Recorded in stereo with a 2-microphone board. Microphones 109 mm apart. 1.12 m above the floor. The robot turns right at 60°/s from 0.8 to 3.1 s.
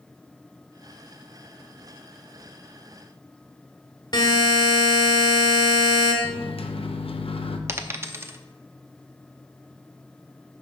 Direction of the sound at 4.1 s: 45° left (ahead or behind).